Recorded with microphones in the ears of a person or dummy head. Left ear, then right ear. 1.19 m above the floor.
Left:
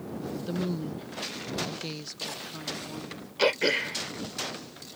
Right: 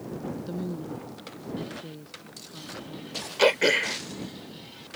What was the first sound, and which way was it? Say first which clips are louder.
A woman speaking: left 2 dB; 20° left (ahead or behind).